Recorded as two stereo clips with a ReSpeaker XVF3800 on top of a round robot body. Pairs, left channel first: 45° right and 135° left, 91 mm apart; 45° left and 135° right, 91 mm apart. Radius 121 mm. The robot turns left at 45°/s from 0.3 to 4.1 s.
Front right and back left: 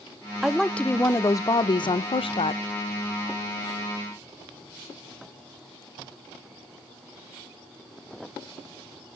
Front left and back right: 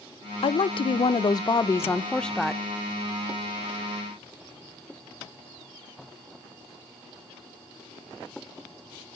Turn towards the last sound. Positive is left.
turn(degrees=-120)